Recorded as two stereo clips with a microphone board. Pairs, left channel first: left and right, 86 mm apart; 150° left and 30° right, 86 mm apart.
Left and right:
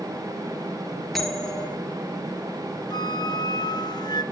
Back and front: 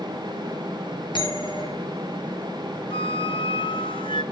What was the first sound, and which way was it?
A bell, straight behind.